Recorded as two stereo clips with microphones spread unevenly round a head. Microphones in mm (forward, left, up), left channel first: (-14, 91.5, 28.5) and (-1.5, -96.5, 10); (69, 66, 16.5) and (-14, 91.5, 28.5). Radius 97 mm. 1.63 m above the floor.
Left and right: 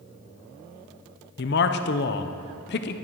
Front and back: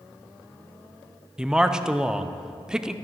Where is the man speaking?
90° left, 0.6 m.